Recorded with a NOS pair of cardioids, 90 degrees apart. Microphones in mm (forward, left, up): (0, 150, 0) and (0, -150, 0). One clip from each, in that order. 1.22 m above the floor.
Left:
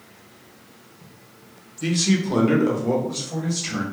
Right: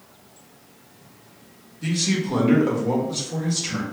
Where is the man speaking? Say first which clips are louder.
Left 2 dB; 30° left, 1.2 m; by 3.8 s straight ahead, 1.9 m.